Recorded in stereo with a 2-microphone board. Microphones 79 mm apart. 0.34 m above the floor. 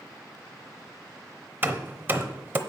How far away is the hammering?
About 0.8 m.